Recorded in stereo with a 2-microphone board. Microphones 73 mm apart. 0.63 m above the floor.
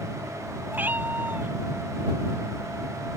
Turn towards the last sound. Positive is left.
turn(degrees=-25)  # may be behind; listen again after turning